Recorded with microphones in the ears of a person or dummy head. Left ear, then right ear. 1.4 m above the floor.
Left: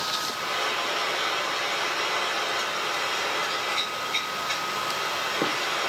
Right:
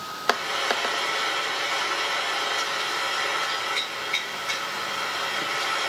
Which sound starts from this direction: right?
Frying, at 0.3 s.